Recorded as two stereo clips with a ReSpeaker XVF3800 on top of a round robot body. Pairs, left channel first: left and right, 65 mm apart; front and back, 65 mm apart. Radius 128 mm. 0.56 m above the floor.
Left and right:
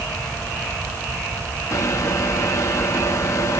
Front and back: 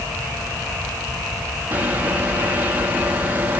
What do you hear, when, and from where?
1.7 s a microwave: 120° left, 1.0 m